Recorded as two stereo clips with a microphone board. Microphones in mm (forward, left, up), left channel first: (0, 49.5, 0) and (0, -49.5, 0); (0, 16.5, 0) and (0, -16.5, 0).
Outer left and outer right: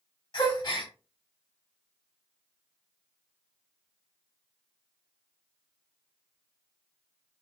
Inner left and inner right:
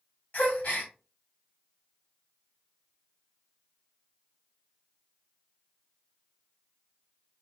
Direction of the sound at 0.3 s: 55° left (ahead or behind).